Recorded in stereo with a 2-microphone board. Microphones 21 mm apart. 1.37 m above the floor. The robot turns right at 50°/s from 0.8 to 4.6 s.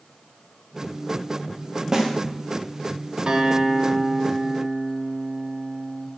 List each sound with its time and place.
1.9 s a snare drum: 25° right (ahead or behind), 0.8 m; by 2.1 s 15° right (ahead or behind), 0.8 m
3.3 s a guitar: 135° right, 0.6 m; by 6.1 s 65° right, 0.6 m